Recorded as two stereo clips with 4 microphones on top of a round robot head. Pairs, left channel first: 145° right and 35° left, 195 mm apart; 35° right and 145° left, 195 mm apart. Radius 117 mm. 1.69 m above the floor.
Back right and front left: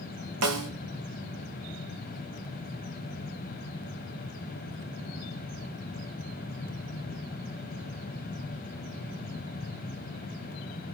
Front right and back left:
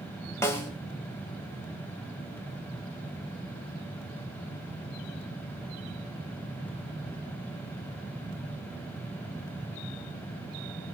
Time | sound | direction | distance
0.4 | a snare drum | 45° left | 2.5 m